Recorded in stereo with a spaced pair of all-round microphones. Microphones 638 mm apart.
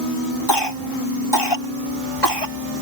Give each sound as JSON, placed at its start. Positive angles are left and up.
{"t": 0.5, "sound": "a cough", "side_deg": 40}